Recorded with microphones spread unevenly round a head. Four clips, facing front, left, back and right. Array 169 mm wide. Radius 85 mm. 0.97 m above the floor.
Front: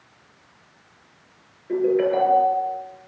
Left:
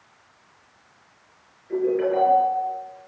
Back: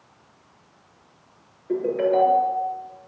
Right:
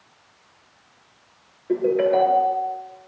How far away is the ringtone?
About 6.5 m.